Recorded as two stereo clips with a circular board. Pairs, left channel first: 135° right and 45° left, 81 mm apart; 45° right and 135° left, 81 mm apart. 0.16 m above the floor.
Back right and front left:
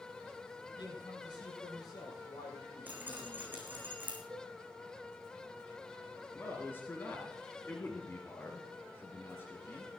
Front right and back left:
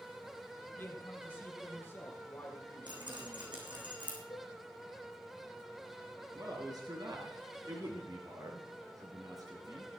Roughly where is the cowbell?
Ahead.